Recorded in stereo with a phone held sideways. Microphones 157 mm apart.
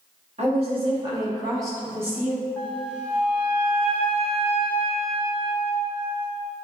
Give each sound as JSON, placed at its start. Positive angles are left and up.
{"t": 0.4, "sound": "a woman speaking", "side_deg": -45, "distance_m": 1.7}
{"t": 2.6, "sound": "a flute", "side_deg": 10, "distance_m": 1.2}